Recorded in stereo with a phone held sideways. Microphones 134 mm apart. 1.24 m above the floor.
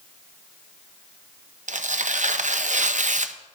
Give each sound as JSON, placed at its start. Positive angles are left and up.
{"t": 1.7, "sound": "tearing paper", "side_deg": -65, "distance_m": 0.6}